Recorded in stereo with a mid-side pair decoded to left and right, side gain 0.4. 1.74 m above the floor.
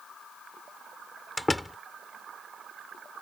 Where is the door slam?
15° left.